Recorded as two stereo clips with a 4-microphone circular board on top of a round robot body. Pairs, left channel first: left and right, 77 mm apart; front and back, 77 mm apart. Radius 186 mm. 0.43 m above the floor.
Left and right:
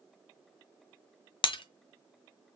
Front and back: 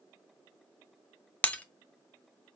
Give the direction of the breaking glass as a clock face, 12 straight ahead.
10 o'clock.